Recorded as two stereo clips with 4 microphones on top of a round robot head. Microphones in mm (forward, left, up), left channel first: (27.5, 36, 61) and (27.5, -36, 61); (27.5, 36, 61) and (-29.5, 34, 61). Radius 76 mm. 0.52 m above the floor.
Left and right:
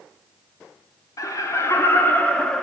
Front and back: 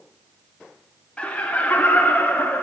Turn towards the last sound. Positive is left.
turn(degrees=10)